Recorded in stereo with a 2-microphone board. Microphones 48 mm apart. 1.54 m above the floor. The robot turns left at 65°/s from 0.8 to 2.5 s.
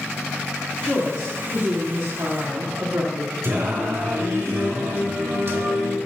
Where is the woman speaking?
20° left, 2.5 m; by 3.3 s 90° right, 2.5 m.